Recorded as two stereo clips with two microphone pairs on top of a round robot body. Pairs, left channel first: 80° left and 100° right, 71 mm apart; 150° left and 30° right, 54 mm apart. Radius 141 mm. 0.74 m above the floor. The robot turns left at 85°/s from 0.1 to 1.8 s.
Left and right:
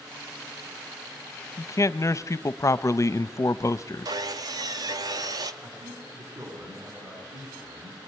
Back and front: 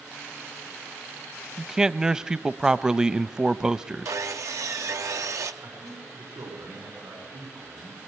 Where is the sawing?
60° right, 0.7 m.